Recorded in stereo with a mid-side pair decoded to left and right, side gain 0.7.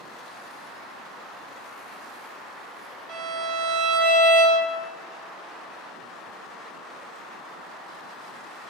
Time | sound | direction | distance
3.1 | a violin | 55° right | 1.1 m